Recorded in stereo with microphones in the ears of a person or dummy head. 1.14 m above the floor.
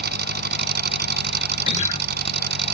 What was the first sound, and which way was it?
An engine running, 55° right (ahead or behind).